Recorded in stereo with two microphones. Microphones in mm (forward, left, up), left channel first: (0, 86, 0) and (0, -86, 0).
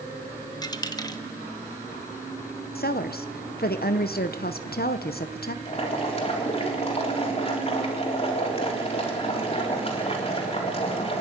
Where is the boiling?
35° left (ahead or behind), 3.5 m.